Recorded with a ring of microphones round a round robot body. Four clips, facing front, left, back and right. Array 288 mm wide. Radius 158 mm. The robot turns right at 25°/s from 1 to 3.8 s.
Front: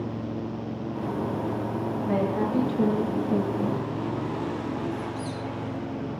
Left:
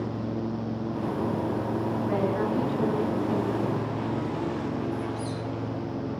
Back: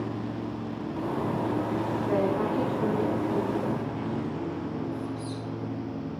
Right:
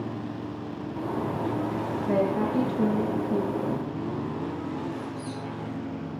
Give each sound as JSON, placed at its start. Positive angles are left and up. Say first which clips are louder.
{"t": 2.1, "sound": "a woman speaking", "louder": "right 3 dB, front 1 dB", "azimuth_deg": -40, "distance_m": 8.0}
{"t": 4.9, "sound": "a squeak", "louder": "left 3 dB, front 2 dB", "azimuth_deg": 30, "distance_m": 9.5}